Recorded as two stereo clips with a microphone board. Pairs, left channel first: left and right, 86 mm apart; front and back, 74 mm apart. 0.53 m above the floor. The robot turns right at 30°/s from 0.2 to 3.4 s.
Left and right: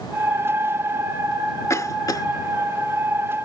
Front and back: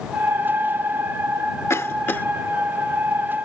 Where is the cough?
45° left; by 2.3 s 60° left.